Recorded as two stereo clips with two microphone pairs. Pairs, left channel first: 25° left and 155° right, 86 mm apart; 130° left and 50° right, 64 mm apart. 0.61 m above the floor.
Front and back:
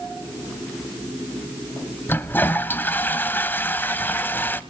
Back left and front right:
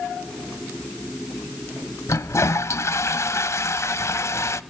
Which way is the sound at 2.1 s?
90° left.